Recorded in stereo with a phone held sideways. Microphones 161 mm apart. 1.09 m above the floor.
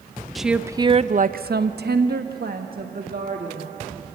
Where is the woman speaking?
Centre (ahead or behind), 0.8 m; by 4.0 s 60° right (ahead or behind), 2.5 m.